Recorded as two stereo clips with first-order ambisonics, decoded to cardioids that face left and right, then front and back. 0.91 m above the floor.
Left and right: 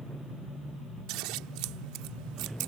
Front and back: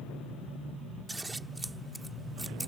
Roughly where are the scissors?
Right.